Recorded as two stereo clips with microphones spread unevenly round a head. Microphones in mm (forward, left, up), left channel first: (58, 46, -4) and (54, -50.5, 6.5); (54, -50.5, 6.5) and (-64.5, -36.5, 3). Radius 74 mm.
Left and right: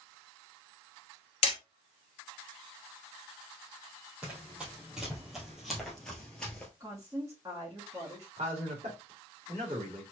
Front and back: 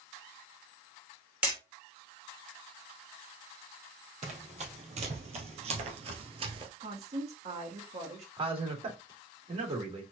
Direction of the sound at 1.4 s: 95° left.